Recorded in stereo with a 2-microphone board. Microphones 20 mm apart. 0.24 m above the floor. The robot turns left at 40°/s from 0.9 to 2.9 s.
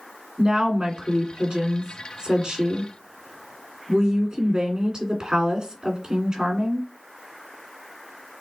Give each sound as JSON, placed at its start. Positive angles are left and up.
{"t": 0.4, "sound": "a woman speaking", "azimuth_deg": -60, "distance_m": 2.0}